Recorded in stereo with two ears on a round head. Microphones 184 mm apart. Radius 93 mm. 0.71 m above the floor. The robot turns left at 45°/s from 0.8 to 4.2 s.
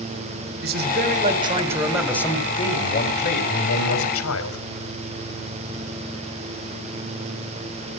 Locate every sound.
0.6 s a man speaking: 125° right, 3 m; by 4.7 s 80° left, 3 m